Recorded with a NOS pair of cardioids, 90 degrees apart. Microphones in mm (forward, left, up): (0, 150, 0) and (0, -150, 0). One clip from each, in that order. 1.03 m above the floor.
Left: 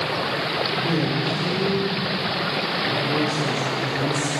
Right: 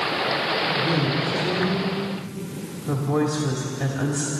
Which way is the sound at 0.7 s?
15° right.